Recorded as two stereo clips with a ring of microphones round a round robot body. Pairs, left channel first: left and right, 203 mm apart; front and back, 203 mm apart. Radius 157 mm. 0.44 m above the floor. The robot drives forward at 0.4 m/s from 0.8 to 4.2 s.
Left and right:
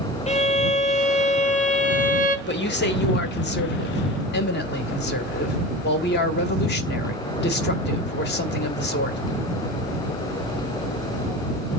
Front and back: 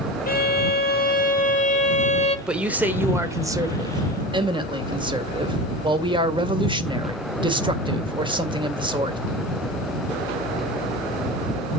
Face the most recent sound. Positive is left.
turn(degrees=115)